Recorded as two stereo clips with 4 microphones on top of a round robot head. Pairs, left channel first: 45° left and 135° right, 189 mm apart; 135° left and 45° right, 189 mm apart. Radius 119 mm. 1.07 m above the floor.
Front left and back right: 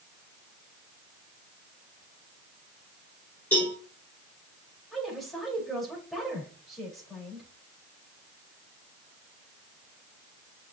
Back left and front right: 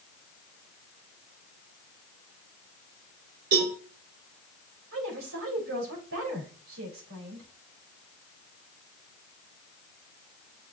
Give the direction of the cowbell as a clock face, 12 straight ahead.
1 o'clock.